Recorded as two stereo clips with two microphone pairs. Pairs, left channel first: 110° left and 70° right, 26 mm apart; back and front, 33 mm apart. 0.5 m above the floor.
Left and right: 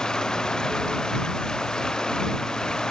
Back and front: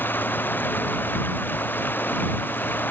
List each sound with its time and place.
0.0 s running water: 175° left